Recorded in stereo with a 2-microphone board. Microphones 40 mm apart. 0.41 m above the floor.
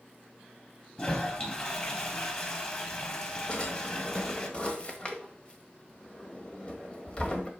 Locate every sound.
1.0 s a toilet flushing: 30° left (ahead or behind), 1.5 m
3.5 s a drawer: 25° left (ahead or behind), 1.3 m